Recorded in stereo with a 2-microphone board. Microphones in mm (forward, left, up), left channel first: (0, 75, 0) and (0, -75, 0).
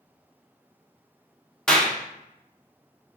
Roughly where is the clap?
Centre.